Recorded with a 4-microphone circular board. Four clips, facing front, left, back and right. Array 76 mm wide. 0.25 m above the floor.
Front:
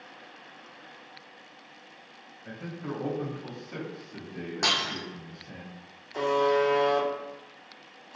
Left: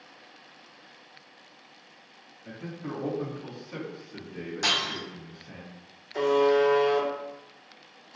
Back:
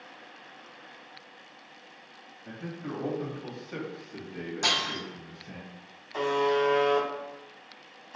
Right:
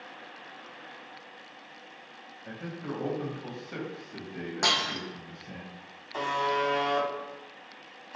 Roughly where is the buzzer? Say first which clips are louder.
Left 7 dB, front 2 dB; behind right.